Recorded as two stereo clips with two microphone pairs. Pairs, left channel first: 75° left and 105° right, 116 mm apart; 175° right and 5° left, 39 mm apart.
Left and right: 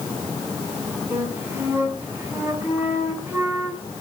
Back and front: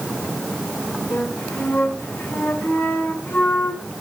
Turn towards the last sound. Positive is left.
turn(degrees=-175)